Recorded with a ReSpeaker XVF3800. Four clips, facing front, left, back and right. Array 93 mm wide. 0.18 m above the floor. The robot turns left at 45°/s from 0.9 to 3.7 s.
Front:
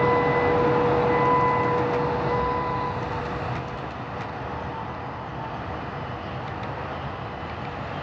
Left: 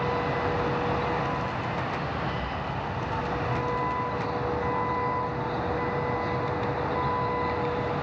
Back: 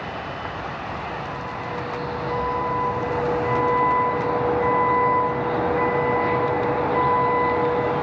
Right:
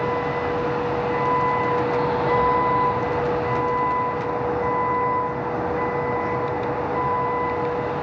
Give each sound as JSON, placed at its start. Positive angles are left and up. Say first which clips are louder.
{"t": 0.0, "sound": "a vehicle", "louder": "right 4 dB, front 10 dB", "azimuth_deg": -20}